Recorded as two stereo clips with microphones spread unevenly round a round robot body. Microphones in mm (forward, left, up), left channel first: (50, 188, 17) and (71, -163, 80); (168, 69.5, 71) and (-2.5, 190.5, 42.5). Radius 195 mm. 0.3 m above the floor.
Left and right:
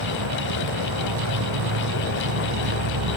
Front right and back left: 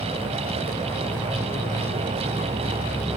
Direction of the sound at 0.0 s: 125° right.